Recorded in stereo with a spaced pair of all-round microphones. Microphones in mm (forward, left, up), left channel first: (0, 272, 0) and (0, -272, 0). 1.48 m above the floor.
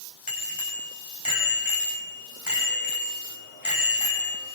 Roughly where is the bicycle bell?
Left.